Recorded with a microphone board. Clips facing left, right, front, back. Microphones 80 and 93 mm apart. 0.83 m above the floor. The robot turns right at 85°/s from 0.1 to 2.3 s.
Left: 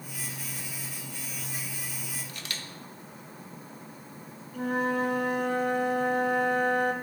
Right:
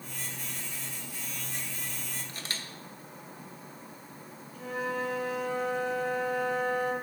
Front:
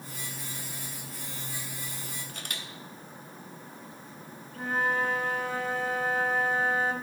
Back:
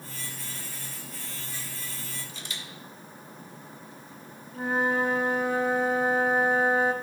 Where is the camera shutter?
35° right, 0.8 m.